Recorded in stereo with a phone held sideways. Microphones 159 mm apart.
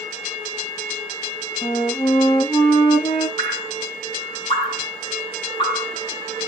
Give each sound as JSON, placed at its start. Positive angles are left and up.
{"t": 1.6, "sound": "a flute", "side_deg": 35, "distance_m": 2.5}
{"t": 3.4, "sound": "dripping", "side_deg": 30, "distance_m": 2.0}